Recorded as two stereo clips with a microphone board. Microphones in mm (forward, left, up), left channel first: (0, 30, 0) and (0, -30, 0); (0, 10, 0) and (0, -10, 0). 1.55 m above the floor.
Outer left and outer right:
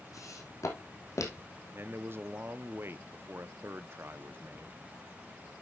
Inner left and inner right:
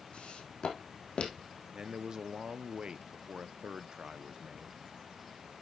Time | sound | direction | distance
0.1 | footsteps | 65° left (ahead or behind) | 3.5 m
1.7 | a man speaking | 40° right (ahead or behind) | 0.8 m